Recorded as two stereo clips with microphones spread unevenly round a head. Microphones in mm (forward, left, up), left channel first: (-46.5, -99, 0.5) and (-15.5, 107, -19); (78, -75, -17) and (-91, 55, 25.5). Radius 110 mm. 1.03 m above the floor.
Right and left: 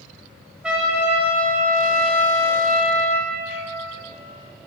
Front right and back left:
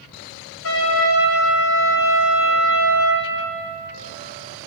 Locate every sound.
0.6 s a trumpet: 5° right, 1.5 m